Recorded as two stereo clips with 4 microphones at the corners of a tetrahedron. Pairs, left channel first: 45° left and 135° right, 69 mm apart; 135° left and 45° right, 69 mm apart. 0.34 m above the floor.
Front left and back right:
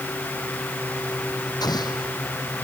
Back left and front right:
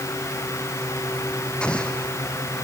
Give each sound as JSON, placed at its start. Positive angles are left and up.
{"t": 1.6, "sound": "an explosion", "azimuth_deg": 60}